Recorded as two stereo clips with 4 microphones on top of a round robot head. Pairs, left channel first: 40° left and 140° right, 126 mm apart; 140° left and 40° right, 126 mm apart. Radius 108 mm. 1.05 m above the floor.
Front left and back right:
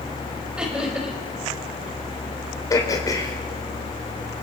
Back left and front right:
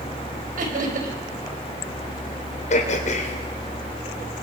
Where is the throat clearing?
105° left, 2.5 m.